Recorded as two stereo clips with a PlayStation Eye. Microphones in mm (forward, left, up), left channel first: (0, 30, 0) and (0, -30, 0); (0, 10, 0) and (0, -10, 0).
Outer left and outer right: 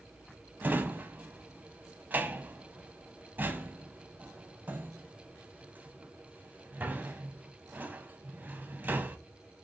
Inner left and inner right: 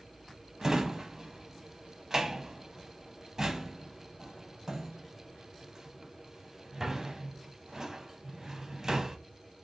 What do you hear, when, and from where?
0.6 s a drawer: 30° right (ahead or behind), 0.7 m